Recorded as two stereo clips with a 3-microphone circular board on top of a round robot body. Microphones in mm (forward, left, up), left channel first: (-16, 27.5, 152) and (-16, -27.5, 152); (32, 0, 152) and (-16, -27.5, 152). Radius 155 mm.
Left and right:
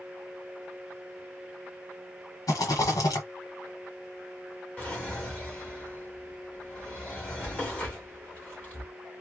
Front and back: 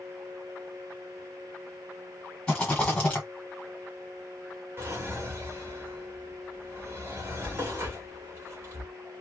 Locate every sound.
2.5 s a rattle: 105° left, 1.4 m
4.8 s a drawer: 155° left, 1.6 m